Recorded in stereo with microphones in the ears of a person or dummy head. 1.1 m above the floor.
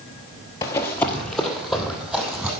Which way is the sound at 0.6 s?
20° left (ahead or behind).